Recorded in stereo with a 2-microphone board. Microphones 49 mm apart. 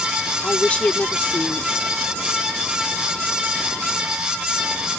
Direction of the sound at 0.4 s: 25° left (ahead or behind).